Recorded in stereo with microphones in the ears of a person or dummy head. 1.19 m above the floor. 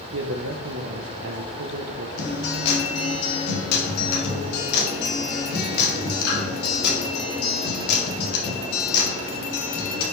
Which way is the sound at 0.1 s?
70° right (ahead or behind).